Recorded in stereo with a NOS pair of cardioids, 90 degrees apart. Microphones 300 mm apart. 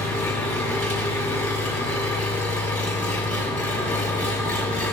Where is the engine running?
5° left, 7.5 m.